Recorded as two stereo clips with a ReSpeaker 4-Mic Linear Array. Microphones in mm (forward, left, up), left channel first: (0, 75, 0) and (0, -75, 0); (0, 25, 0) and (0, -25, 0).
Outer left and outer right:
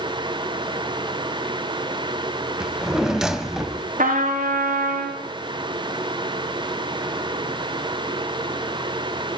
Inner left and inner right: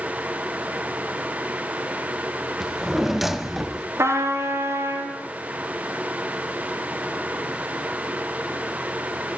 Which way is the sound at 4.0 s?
75° right (ahead or behind).